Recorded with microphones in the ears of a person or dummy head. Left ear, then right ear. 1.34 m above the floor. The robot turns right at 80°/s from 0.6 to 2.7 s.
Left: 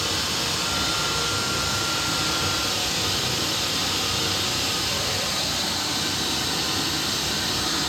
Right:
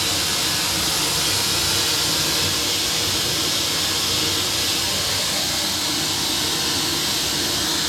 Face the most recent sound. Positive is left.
turn(degrees=10)